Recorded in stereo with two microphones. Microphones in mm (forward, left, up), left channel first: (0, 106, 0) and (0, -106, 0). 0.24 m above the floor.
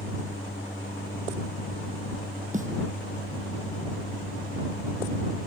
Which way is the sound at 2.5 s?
35° right (ahead or behind).